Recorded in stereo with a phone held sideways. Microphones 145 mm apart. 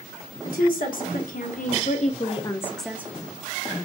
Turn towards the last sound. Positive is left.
turn(degrees=-45)  # may be behind; listen again after turning